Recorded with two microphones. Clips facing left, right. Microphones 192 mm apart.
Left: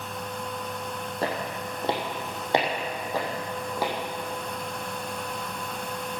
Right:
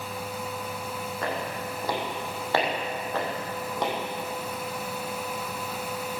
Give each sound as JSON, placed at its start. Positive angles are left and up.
{"t": 1.2, "sound": "footsteps", "side_deg": 35, "distance_m": 3.5}